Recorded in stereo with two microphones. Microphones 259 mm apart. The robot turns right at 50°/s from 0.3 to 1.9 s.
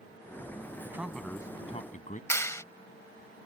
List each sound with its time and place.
0.8 s a man speaking: 15° right; by 2.2 s 40° left
2.3 s a clap: 10° left (ahead or behind)